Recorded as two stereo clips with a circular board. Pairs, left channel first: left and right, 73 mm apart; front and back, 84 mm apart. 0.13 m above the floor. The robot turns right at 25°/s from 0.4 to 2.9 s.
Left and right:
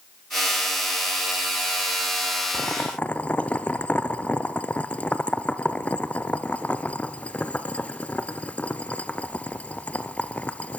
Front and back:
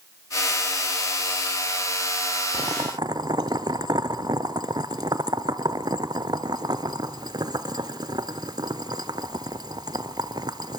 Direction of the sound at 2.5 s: 150° left.